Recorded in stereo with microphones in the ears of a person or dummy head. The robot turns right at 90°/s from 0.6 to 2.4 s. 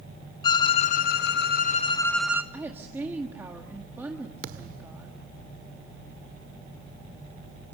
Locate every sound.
0.4 s a violin: 35° left, 0.8 m; by 2.4 s 165° right, 0.8 m
2.5 s a woman speaking: 10° right (ahead or behind), 1.8 m
4.4 s a thud: 55° right (ahead or behind), 1.6 m